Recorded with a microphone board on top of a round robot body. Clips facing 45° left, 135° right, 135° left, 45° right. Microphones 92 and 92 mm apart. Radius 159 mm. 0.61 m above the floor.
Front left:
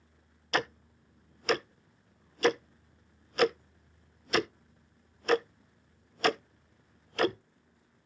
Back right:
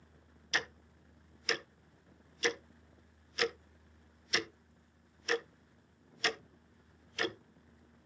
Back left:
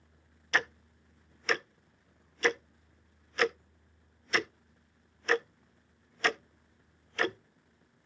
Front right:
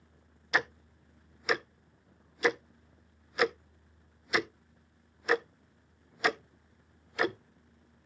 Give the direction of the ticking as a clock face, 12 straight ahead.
11 o'clock.